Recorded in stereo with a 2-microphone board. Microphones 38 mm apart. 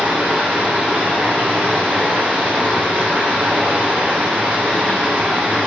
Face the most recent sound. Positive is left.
turn(degrees=-55)  # may be behind; listen again after turning